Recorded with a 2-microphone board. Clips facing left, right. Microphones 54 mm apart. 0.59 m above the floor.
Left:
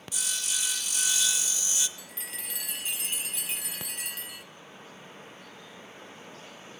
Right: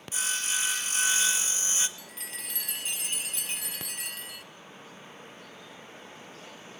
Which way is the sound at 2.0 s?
Centre (ahead or behind).